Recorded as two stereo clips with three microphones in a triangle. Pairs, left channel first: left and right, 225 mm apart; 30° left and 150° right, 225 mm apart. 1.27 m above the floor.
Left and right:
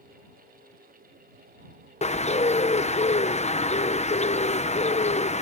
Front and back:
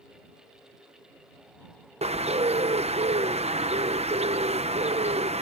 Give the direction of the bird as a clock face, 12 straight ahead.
7 o'clock.